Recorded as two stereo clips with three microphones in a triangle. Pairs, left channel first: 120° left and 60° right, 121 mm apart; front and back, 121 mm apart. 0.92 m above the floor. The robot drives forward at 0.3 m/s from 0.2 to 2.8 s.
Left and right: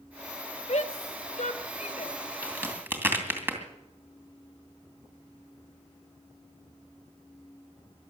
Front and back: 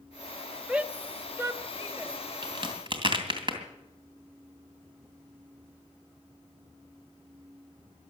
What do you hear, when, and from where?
0.7 s a shout: 100° left, 1.1 m; by 2.1 s 120° left, 1.3 m
2.4 s a crack: 130° right, 2.5 m